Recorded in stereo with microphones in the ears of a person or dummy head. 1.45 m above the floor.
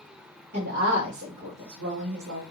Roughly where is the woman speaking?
Right.